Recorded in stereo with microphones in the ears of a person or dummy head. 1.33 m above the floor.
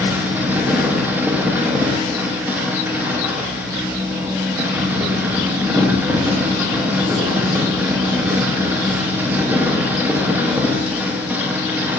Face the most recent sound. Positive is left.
turn(degrees=-10)  # may be behind; listen again after turning